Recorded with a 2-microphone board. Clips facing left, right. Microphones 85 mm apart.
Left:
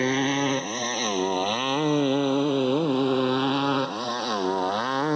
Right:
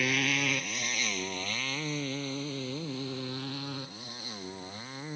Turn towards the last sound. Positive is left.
turn(degrees=75)  # may be behind; listen again after turning